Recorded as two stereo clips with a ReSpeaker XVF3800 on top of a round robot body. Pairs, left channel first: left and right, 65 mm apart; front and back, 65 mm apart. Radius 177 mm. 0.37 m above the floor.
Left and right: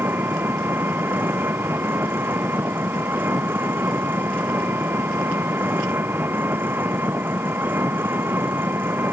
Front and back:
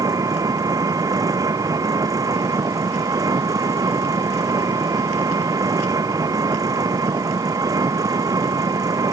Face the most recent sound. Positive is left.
turn(degrees=-150)